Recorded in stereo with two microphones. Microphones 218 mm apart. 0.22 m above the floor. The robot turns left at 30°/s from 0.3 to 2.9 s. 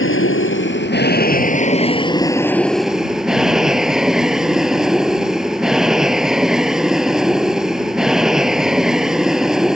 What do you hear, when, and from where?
0.0 s an aircraft: 75° left; by 9.8 s 5° right